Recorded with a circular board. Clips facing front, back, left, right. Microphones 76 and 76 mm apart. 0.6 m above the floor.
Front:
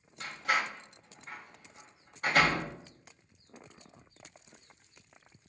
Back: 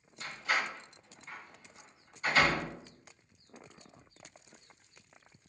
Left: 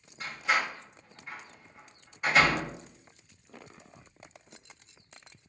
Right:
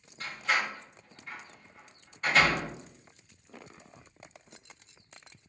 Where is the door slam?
10° left, 1.3 m.